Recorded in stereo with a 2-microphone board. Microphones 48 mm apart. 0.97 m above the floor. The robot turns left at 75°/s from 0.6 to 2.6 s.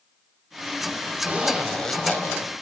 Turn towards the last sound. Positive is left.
turn(degrees=115)